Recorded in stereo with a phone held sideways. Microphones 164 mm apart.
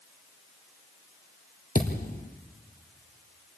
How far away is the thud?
About 2.5 m.